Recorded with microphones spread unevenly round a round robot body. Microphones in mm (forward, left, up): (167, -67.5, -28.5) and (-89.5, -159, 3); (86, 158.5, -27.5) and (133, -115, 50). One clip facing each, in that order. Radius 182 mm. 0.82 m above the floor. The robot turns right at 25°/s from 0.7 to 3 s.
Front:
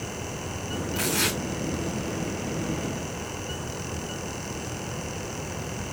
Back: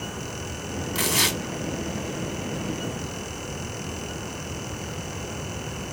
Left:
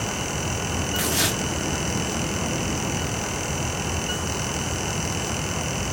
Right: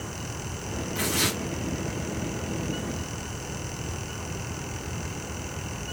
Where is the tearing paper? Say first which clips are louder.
Back 1 dB, even; 175° right, 3 m; by 1.4 s 165° right, 3 m.